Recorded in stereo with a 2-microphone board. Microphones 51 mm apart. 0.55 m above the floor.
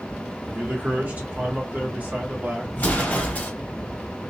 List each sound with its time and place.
0.5 s a man speaking: 30° right (ahead or behind), 1.4 m
2.7 s an explosion: 35° left (ahead or behind), 1.4 m